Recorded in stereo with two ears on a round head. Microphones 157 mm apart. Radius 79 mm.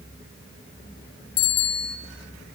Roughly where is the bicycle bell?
Left.